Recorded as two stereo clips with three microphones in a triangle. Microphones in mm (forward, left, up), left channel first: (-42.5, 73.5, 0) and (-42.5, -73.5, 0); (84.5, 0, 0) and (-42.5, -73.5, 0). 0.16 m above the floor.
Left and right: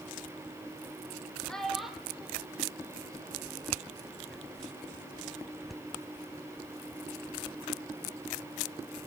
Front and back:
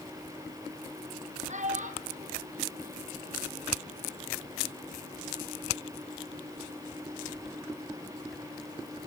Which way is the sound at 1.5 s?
175° left.